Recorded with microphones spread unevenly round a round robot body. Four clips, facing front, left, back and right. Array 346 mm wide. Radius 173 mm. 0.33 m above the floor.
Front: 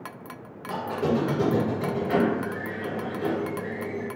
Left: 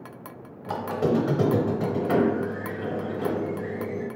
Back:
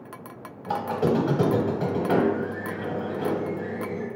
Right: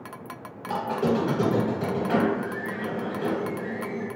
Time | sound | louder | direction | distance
0.7 | a squeak | even, back 2 dB | 155° left | 0.8 m